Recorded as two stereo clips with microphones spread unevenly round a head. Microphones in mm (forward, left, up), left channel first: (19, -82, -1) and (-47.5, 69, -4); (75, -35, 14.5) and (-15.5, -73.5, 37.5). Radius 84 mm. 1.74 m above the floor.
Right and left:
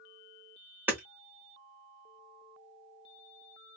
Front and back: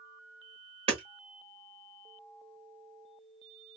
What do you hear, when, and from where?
0.9 s hammering: 170° right, 1.1 m